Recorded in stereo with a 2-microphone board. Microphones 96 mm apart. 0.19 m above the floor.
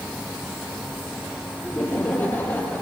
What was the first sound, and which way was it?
Laughter, 20° left (ahead or behind).